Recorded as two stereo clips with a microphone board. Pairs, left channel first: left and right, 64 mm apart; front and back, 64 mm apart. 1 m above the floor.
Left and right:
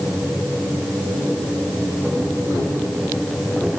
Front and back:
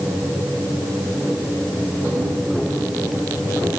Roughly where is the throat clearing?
No throat clearing in this recording.